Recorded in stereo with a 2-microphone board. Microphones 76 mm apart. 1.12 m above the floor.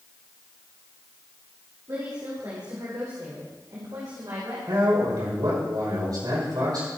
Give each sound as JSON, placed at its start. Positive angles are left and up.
{"t": 1.9, "sound": "a woman speaking", "side_deg": -45, "distance_m": 3.5}
{"t": 4.7, "sound": "a man speaking", "side_deg": -65, "distance_m": 5.5}